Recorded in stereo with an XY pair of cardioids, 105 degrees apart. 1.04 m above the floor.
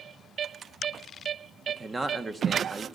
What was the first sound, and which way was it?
A man speaking, 25° right.